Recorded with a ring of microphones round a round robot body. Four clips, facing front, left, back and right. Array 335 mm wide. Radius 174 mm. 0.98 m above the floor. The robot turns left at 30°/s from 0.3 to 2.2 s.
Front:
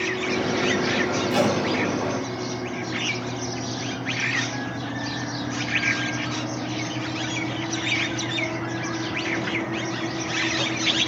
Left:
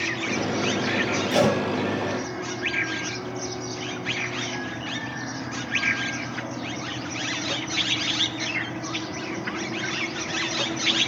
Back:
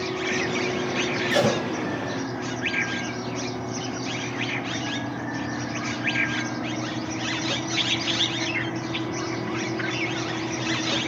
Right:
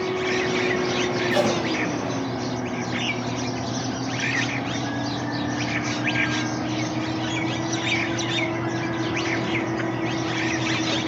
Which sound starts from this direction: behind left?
Tape being pulled, at 1.3 s.